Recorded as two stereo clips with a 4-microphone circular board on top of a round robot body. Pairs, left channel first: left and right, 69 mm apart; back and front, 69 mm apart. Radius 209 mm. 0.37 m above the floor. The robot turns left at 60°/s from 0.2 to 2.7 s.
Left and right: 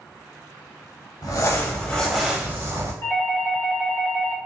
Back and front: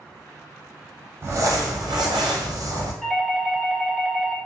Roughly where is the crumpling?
Ahead left.